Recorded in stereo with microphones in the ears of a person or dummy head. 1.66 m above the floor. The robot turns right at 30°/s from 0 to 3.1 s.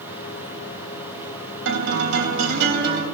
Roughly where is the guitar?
Right.